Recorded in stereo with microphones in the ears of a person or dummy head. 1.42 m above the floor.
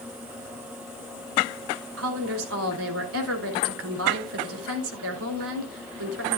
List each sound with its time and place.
2.0 s a woman speaking: 80° right, 3 m